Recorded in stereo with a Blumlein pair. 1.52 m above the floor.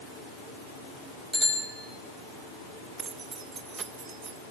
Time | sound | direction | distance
1.3 | a bicycle bell | 5° right | 7 m
3.0 | keys jangling | 20° right | 1.3 m